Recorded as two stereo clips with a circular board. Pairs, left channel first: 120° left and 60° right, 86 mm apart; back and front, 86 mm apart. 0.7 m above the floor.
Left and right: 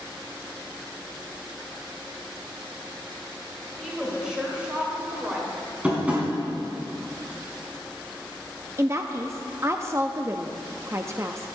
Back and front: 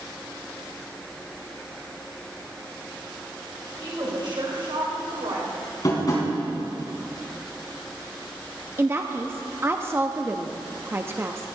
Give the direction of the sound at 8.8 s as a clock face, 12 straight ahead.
1 o'clock.